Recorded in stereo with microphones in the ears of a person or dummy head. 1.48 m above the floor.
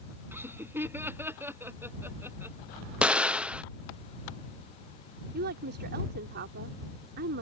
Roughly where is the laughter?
Centre.